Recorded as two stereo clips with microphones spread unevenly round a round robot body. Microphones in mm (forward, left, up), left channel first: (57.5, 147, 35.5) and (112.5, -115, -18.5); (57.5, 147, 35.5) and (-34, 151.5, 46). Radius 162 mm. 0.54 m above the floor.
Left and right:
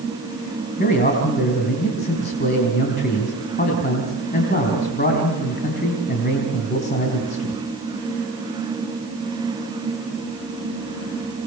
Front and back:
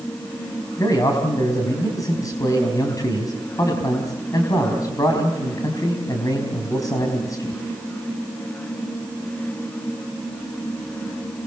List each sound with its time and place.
0.8 s a man speaking: 45° left, 4 m